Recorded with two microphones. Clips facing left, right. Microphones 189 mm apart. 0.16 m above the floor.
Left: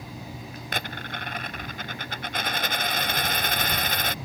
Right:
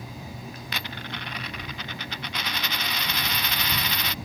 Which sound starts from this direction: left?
A dropped coin, at 0.7 s.